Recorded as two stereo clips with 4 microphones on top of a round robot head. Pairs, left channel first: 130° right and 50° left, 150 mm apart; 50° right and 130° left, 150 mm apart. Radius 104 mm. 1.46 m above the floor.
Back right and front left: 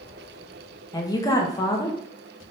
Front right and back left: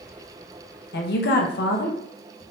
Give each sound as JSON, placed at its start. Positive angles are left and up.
{"t": 0.9, "sound": "a woman speaking", "azimuth_deg": -65, "distance_m": 0.8}